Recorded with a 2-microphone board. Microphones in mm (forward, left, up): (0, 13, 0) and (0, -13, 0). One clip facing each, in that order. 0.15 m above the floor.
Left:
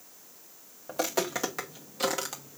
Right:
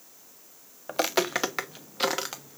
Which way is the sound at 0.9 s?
65° right (ahead or behind).